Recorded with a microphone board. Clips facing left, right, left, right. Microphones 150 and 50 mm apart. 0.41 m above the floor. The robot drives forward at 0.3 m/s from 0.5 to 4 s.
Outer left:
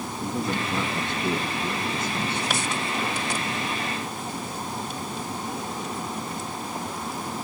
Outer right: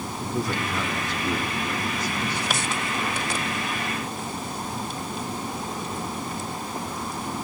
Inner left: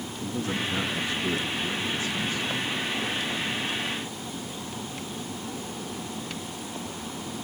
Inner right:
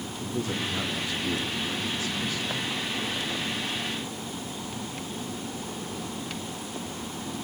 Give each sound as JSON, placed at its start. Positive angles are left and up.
{"t": 0.2, "sound": "a man speaking", "side_deg": 25, "distance_m": 5.0}